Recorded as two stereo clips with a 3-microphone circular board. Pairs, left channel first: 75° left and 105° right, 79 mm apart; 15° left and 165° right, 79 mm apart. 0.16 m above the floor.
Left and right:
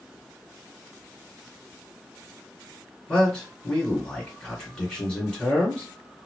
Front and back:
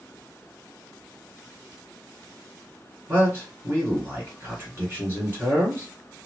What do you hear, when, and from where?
3.1 s a man speaking: 150° left, 2 m